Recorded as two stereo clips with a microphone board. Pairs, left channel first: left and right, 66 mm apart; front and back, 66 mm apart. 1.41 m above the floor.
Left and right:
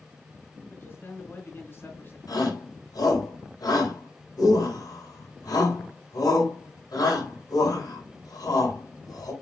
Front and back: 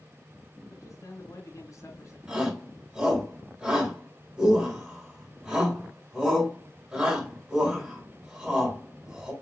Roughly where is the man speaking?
Ahead left.